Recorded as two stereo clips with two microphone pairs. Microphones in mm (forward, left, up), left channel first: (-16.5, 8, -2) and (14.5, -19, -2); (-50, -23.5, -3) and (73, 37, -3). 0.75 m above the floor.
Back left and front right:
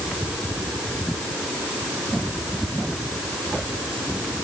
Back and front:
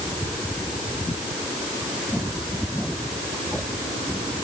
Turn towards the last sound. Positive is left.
No sound to turn to.